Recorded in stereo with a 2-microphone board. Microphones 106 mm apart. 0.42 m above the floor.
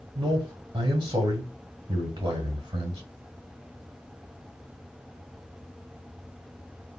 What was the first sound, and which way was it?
A man speaking, 45° right (ahead or behind).